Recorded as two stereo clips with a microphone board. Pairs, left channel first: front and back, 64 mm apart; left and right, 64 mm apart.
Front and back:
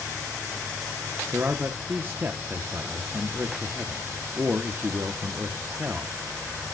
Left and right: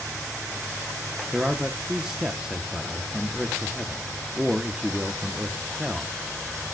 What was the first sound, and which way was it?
A man speaking, 155° right.